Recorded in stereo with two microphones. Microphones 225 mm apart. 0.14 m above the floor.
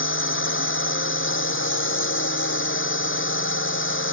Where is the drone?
60° left (ahead or behind).